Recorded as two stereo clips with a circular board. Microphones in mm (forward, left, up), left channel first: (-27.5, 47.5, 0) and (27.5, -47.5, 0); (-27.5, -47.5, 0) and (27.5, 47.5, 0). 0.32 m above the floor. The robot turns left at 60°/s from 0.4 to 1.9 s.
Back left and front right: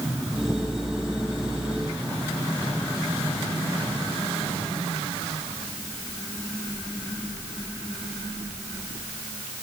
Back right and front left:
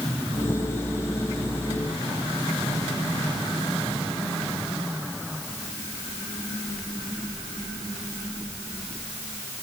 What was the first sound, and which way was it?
Only background noise.